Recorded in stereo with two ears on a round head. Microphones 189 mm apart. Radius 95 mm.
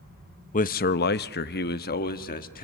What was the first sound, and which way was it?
A man speaking, 35° left (ahead or behind).